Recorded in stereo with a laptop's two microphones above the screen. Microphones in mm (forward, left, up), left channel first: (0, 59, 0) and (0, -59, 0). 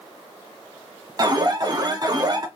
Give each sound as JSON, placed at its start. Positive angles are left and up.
{"t": 1.2, "sound": "an alarm", "side_deg": -35, "distance_m": 0.9}